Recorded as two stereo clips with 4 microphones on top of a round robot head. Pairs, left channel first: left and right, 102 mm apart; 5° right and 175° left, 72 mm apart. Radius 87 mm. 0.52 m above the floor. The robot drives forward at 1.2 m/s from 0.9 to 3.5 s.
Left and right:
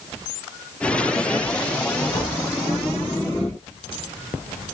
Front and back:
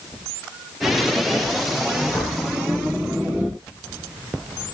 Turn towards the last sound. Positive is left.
turn(degrees=110)